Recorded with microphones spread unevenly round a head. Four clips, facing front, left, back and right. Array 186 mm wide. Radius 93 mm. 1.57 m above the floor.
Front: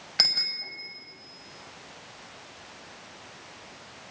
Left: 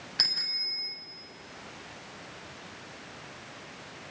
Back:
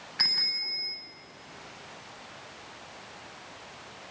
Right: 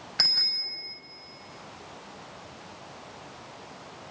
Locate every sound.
0.2 s a bicycle bell: 5° left, 6.5 m